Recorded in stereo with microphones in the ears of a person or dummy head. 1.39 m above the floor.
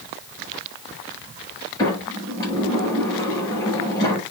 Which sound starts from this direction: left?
A sliding door, at 1.8 s.